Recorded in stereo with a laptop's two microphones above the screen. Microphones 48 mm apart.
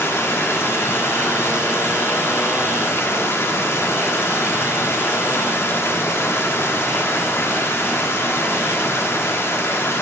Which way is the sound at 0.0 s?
55° left (ahead or behind).